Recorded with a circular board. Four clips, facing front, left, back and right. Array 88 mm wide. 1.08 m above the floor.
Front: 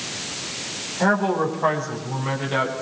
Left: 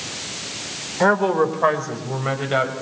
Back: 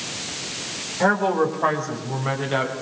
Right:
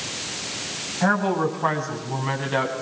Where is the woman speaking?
100° left, 4 m; by 2.7 s 105° left, 6.5 m.